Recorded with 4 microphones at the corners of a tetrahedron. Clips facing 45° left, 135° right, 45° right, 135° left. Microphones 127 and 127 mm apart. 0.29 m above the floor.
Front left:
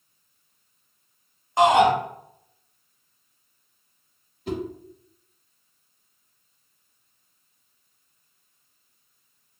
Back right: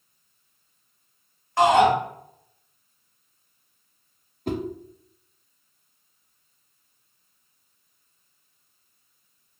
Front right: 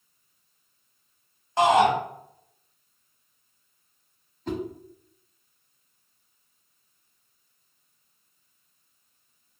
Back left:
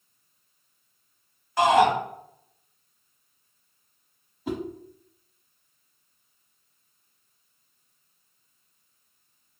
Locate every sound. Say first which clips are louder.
1.6 s a shout: even, even; 10° right, 1.2 m
4.5 s a whoosh: back right 1 dB, even; 150° right, 0.5 m